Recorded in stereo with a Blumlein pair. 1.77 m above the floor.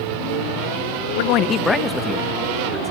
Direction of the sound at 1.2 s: 55° left.